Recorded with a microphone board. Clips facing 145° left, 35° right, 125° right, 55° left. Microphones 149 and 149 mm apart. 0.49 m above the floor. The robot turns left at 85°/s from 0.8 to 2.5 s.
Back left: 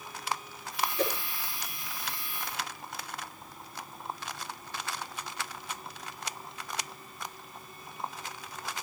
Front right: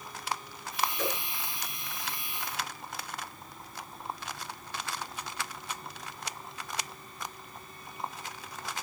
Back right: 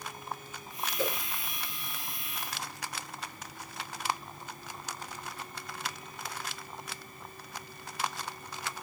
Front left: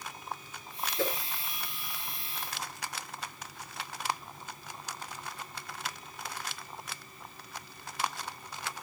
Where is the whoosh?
90° left, 8 m; by 1.1 s 80° left, 8 m.